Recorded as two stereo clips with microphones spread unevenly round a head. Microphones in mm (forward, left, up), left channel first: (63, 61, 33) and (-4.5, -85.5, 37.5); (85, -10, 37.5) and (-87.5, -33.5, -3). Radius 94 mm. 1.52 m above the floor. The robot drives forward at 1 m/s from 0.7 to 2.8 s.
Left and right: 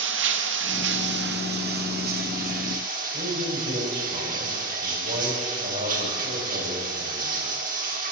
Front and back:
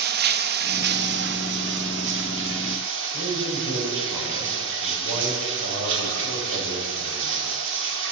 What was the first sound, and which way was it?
Running water, 140° right.